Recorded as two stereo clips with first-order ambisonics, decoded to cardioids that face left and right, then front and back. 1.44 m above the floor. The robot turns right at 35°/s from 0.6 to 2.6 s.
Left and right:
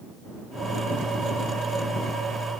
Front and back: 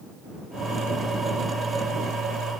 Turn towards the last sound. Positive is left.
No sound to turn to.